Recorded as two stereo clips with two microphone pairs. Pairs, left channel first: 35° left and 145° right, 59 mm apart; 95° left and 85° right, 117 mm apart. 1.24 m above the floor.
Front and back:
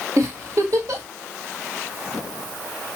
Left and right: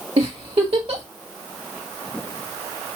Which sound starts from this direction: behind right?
A giggle, at 0.2 s.